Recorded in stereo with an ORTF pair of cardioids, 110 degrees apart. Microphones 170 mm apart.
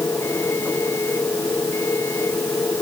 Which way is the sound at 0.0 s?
15° left.